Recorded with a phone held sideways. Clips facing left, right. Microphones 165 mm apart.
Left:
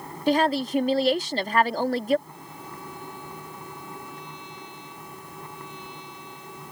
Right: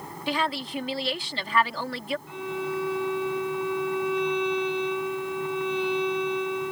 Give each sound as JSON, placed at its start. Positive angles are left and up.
{"t": 0.3, "sound": "a woman speaking", "side_deg": 40}
{"t": 2.3, "sound": "a violin", "side_deg": -75}